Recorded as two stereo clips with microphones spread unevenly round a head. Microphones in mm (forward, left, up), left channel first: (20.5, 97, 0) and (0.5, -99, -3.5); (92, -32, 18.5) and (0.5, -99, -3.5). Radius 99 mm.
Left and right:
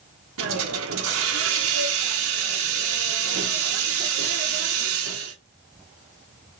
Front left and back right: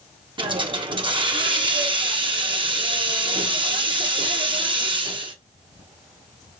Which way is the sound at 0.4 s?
95° right.